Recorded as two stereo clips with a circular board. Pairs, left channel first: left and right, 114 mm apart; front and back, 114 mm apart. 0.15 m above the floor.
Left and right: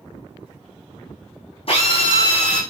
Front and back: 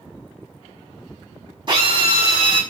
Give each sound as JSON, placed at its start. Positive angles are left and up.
{"t": 1.7, "sound": "a drill", "azimuth_deg": 130, "distance_m": 5.5}